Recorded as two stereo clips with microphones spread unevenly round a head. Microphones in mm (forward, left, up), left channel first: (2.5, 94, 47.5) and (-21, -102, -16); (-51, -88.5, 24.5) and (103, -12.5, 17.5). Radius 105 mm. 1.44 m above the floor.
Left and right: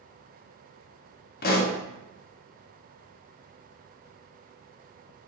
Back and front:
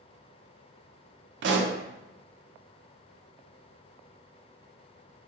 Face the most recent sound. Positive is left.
turn(degrees=30)